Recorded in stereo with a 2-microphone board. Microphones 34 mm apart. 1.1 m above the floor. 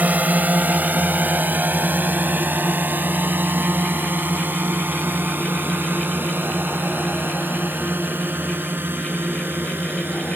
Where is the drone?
55° right (ahead or behind); by 10.4 s 85° right.